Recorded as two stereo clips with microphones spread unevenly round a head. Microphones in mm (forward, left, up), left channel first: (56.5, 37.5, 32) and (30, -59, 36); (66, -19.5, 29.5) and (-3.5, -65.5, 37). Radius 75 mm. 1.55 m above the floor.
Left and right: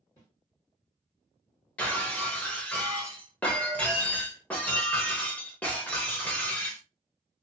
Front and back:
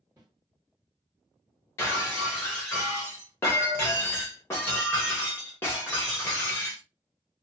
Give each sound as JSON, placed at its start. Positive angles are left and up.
{"t": 0.2, "sound": "a snare drum", "azimuth_deg": 135, "distance_m": 1.5}
{"t": 1.8, "sound": "breaking glass", "azimuth_deg": 20, "distance_m": 0.8}